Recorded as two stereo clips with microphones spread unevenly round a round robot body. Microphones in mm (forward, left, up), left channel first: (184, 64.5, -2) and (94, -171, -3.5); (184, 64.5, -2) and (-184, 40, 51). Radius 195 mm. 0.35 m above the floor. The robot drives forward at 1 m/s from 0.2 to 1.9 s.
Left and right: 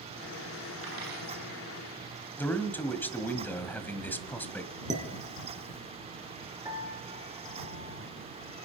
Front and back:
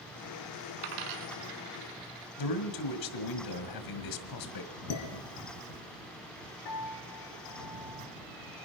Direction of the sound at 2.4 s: 15° right.